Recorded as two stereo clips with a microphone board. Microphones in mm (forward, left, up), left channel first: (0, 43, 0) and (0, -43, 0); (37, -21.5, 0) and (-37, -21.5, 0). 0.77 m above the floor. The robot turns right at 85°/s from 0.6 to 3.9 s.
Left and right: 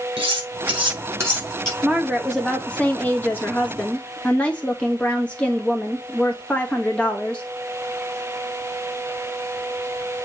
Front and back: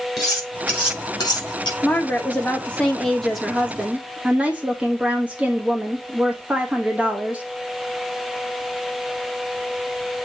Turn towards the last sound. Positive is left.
turn(degrees=140)